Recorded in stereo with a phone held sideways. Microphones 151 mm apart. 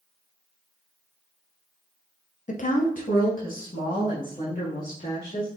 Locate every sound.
2.5 s a woman speaking: 55° left (ahead or behind), 0.5 m; by 5.5 s 70° left (ahead or behind), 2.5 m